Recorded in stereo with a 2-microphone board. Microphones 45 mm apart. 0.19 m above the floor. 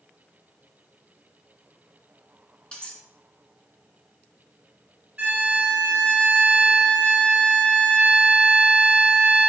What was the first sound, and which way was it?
Cutlery clinking, 20° left (ahead or behind).